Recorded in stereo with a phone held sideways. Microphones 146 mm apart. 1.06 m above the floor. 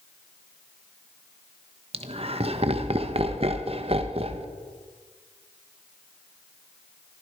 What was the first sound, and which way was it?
Laughter, 45° right (ahead or behind).